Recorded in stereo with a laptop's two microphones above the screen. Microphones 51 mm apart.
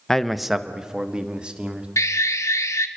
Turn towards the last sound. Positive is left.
turn(degrees=85)